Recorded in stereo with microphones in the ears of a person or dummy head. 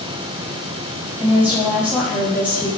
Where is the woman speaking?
10° right (ahead or behind), 2.5 m.